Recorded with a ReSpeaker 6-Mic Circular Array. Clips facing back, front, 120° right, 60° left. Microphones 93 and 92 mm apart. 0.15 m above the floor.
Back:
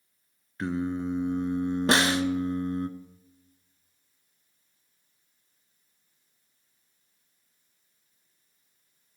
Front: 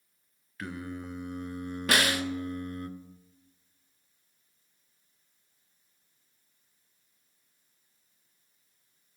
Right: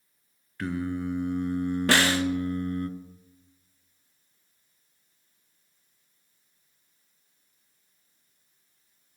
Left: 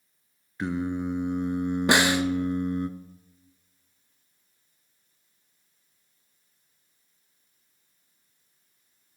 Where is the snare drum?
130° left, 0.5 m.